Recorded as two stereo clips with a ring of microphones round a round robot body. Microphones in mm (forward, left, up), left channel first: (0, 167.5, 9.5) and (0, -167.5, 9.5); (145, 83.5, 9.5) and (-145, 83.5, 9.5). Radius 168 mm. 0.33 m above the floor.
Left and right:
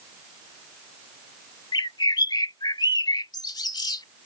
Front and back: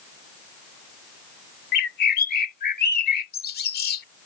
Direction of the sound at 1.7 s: 20° left.